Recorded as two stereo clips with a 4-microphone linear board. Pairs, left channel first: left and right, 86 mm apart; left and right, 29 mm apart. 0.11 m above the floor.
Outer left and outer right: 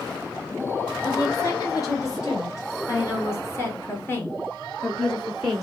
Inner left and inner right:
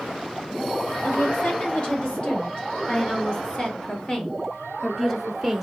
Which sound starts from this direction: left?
A woman speaking, at 1.0 s.